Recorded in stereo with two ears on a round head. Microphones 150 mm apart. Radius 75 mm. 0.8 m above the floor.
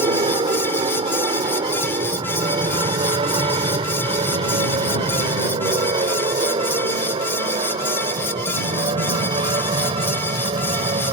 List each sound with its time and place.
0.0 s an aircraft: 30° right (ahead or behind)